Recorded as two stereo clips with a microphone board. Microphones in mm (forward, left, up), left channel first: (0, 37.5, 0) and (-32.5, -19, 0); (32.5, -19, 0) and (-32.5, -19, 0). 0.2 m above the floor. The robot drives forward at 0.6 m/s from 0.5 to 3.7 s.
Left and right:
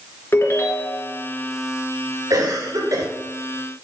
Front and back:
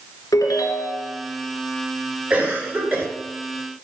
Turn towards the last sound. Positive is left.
turn(degrees=-130)